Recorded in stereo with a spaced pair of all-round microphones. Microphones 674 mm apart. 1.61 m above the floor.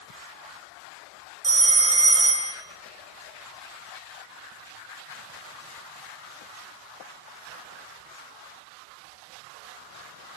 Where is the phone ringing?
40° right (ahead or behind), 0.6 m.